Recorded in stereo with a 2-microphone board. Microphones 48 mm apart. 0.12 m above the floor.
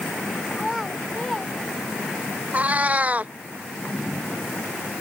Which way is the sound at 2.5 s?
30° right (ahead or behind).